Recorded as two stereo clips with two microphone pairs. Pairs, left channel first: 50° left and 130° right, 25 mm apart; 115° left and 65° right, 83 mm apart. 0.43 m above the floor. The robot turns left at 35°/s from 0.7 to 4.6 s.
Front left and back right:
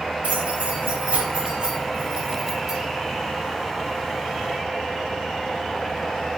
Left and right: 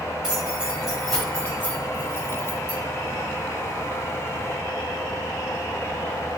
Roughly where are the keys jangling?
Behind right.